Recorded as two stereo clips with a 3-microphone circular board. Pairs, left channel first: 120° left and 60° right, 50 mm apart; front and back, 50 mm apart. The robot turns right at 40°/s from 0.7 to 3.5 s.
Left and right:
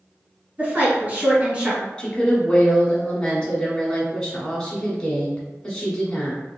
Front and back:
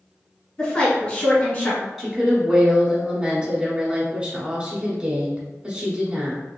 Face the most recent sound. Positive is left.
turn(degrees=170)